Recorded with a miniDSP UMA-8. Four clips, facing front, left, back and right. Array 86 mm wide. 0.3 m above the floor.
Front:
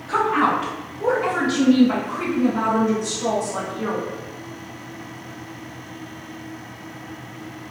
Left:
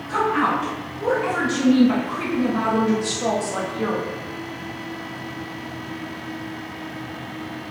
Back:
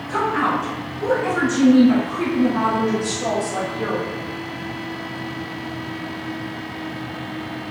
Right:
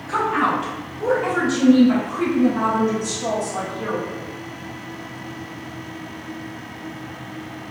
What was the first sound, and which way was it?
A woman speaking, 35° right.